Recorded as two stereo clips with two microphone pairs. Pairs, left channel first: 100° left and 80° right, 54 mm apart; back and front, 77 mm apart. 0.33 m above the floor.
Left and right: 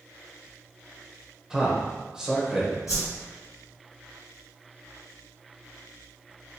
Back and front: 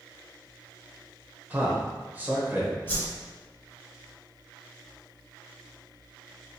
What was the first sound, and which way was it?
A man speaking, 15° right.